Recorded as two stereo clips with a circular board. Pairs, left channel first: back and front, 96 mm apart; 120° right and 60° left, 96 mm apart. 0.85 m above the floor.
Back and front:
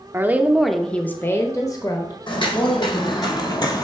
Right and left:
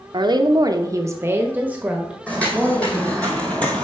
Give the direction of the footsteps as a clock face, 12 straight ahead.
6 o'clock.